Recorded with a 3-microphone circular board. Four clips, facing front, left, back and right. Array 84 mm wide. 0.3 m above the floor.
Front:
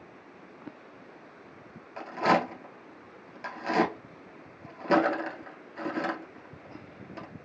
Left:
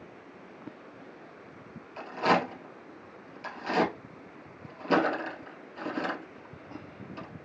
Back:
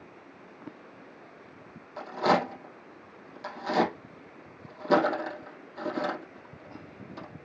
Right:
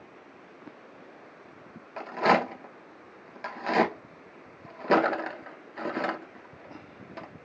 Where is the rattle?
75° right, 1.9 m.